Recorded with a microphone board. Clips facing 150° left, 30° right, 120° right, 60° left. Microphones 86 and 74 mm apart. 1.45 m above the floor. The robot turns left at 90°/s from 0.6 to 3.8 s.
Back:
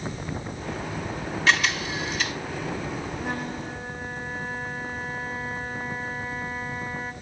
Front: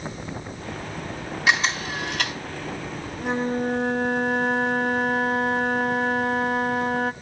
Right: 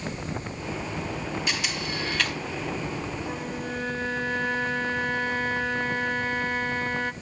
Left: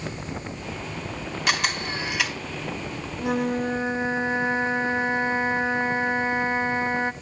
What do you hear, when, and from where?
1.5 s a camera shutter: 45° left, 2.5 m; by 2.4 s 35° right, 2.5 m
3.2 s a flute: 50° left, 0.6 m; by 7.1 s 5° right, 0.6 m